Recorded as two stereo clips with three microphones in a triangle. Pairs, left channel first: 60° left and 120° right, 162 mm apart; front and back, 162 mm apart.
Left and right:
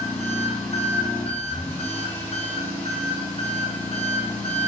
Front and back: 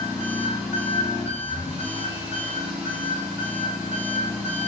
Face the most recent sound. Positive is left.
turn(degrees=100)